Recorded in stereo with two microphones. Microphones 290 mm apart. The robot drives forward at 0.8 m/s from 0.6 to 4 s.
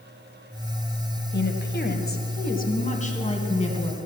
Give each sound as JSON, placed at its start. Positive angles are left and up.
{"t": 1.3, "sound": "a woman speaking", "side_deg": 35, "distance_m": 1.4}